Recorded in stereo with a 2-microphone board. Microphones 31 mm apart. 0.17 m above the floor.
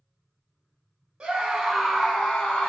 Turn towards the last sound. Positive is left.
turn(degrees=35)  # may be behind; listen again after turning